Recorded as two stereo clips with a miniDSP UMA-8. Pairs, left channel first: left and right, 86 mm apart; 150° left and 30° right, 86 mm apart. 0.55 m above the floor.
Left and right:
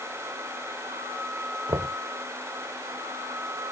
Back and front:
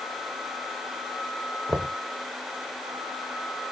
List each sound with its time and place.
1.7 s knocking: 85° right